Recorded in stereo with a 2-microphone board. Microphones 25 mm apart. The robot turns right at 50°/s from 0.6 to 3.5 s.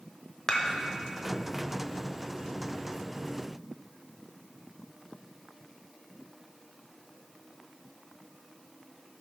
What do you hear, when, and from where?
0.5 s dishes clattering: 25° left (ahead or behind), 0.9 m; by 0.7 s 30° left (ahead or behind), 0.9 m